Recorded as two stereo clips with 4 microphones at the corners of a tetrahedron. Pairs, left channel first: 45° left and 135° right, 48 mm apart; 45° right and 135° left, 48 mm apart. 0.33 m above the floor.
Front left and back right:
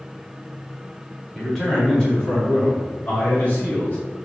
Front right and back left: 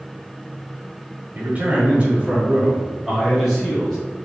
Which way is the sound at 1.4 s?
130° left.